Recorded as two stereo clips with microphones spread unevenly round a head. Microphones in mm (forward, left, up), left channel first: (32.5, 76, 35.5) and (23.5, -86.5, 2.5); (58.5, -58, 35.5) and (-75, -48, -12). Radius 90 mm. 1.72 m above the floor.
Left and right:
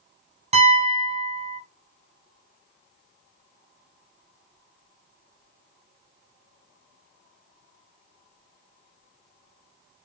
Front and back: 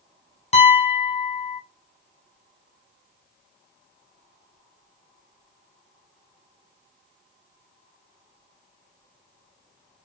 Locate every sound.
0.5 s a piano: 35° right, 1.3 m